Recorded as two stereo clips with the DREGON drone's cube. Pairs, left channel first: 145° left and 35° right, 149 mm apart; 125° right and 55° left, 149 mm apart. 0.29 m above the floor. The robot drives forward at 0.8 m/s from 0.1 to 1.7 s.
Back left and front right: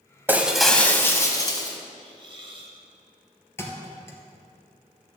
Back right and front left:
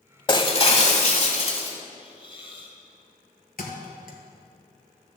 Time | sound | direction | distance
0.3 | breaking glass | 100° right | 0.8 m
2.0 | a hiss | 80° right | 1.7 m
3.6 | a thud | 140° right | 1.5 m